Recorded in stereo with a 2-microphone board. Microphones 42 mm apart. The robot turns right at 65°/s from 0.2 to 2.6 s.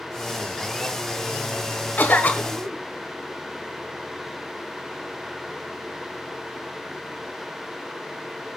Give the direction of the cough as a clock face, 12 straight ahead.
9 o'clock.